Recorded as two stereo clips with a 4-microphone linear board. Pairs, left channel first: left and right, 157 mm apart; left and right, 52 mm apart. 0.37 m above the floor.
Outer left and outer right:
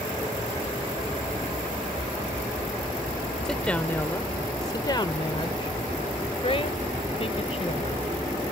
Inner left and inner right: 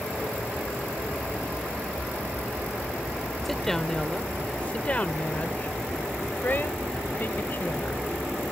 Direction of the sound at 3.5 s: 5° left (ahead or behind).